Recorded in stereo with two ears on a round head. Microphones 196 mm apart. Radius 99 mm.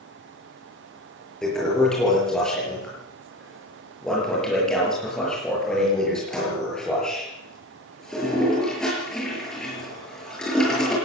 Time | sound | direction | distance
1.4 | a toilet flushing | 5° left (ahead or behind) | 8 m